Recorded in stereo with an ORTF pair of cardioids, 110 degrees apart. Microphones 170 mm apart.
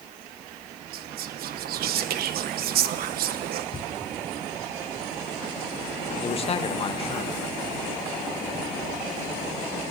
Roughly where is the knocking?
Ahead left.